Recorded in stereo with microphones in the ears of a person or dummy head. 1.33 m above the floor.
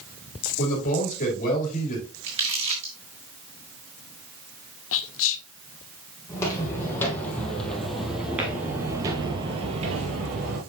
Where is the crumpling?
30° right (ahead or behind), 2.5 m.